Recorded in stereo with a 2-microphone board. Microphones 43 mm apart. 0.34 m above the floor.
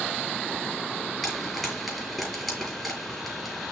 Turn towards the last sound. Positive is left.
turn(degrees=0)  # may be behind; listen again after turning